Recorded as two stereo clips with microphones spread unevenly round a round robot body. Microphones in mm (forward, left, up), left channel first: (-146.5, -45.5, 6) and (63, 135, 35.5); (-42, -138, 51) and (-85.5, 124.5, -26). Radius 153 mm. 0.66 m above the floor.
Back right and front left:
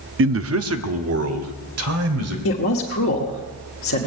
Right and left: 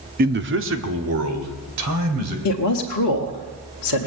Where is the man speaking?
75° left, 0.8 m.